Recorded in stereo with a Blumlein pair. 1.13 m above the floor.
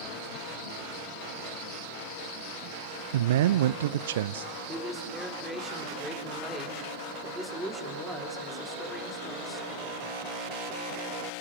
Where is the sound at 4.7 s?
Straight ahead, 4.5 m.